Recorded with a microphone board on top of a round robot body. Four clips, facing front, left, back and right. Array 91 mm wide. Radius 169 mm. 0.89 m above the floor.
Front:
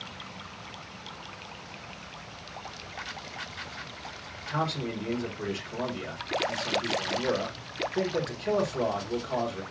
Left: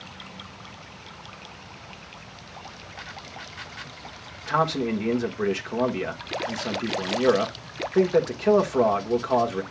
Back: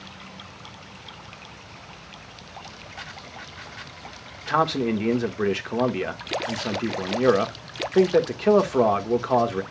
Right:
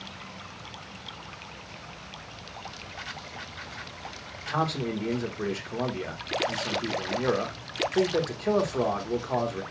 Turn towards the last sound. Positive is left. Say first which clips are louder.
# left 5 dB, back 9 dB
turn(degrees=160)